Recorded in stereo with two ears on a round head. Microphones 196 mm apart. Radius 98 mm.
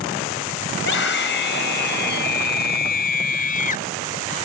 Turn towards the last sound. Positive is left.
turn(degrees=35)  # may be behind; listen again after turning